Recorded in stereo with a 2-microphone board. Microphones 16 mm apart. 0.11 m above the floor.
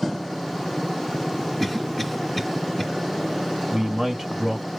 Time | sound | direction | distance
1.6 | a cough | centre (ahead or behind) | 1.9 m
3.7 | a man speaking | 25° right (ahead or behind) | 2.5 m